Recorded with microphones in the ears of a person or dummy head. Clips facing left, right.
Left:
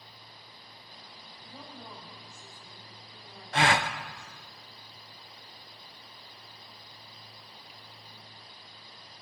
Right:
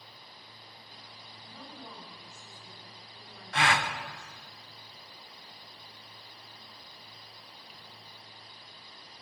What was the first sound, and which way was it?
A woman speaking, 20° left (ahead or behind).